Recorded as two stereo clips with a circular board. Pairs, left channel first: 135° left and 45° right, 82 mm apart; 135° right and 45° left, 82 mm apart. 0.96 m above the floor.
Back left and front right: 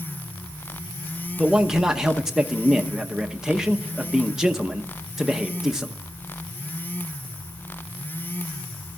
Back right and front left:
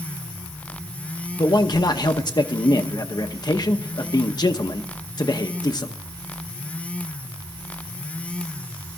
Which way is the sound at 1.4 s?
130° right.